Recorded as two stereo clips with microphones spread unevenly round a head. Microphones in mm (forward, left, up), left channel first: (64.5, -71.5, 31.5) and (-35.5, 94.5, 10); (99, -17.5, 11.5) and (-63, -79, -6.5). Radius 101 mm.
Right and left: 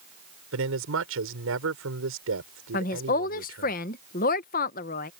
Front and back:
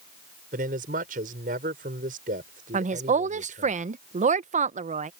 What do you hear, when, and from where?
0.5 s a man speaking: 145° left
2.7 s a woman speaking: 110° right